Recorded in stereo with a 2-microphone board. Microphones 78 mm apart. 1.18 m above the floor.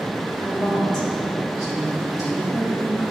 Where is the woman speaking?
75° left (ahead or behind), 1.5 m; by 3.0 s 30° left (ahead or behind), 2.5 m.